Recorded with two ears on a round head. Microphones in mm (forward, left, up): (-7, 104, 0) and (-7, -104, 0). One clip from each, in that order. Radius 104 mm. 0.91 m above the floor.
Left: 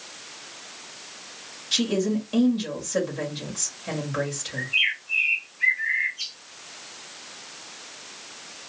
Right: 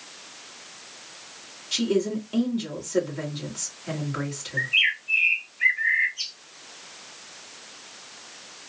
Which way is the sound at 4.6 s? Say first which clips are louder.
Right 2 dB; 45° right (ahead or behind).